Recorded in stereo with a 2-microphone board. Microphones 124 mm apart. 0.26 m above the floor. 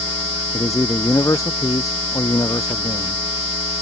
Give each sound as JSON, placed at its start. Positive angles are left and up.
{"t": 0.5, "sound": "a man speaking", "side_deg": 25}